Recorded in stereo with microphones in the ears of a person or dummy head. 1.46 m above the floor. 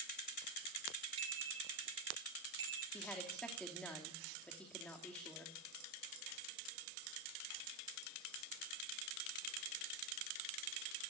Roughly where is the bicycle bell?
Right.